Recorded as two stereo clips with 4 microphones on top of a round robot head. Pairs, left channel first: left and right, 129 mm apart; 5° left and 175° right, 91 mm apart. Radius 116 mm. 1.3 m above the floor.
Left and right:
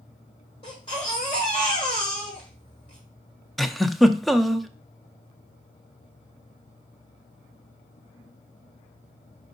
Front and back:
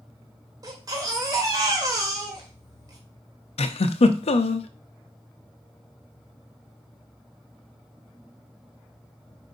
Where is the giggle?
Straight ahead, 0.6 m.